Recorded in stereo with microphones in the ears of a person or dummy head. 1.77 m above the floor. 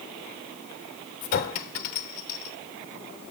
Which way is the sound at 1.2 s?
35° left (ahead or behind).